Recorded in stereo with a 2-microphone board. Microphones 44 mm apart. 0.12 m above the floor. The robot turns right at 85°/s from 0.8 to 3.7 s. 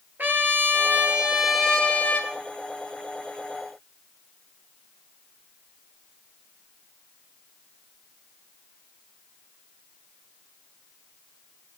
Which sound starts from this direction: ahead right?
A trumpet, at 0.2 s.